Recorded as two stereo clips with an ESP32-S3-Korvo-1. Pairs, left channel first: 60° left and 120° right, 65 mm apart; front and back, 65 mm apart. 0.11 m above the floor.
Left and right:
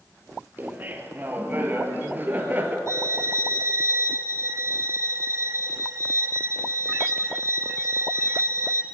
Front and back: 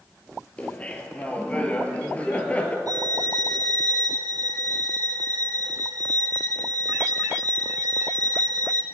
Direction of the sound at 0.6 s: 65° right.